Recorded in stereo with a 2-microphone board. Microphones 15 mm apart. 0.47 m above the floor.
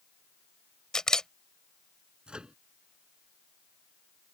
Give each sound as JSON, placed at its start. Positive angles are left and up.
{"t": 0.9, "sound": "a camera shutter", "side_deg": 45}
{"t": 2.3, "sound": "a microwave", "side_deg": -80}